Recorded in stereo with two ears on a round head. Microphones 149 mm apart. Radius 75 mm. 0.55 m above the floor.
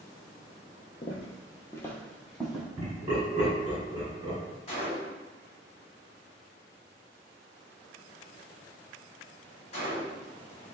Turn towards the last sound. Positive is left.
turn(degrees=35)  # may be behind; listen again after turning